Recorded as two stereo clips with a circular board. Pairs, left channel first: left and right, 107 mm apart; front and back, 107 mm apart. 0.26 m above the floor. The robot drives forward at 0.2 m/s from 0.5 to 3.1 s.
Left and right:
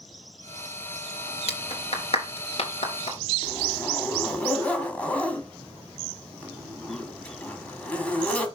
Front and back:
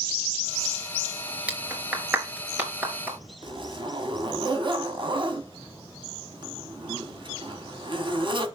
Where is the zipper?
165° left, 1.6 m.